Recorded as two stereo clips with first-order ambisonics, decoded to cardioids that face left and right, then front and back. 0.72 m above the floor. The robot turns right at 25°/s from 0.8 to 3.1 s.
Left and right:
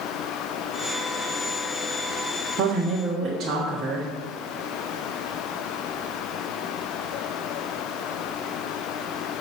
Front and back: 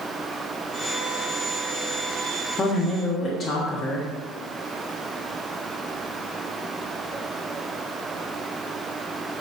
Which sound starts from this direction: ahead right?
A woman speaking, at 2.6 s.